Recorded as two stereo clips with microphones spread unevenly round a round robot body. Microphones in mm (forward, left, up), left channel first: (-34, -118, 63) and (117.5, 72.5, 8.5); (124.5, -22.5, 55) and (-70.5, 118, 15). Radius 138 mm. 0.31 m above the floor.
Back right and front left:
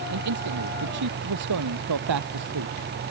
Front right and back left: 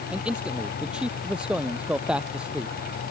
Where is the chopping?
No chopping in this recording.